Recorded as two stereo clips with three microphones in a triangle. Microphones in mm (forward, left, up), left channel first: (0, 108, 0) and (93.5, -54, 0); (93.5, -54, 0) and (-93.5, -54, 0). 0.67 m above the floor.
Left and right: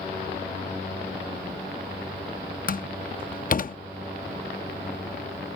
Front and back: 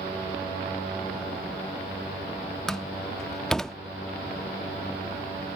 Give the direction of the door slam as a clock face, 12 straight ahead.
9 o'clock.